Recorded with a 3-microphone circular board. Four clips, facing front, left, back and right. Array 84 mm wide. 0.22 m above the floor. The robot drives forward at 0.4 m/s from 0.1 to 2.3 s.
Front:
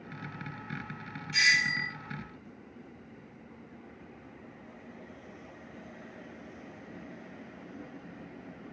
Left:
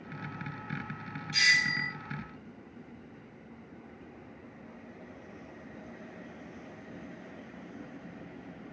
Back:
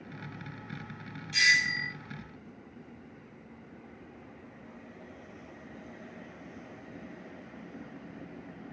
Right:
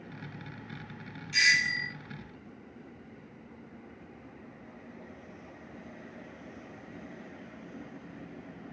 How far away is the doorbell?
About 1.6 m.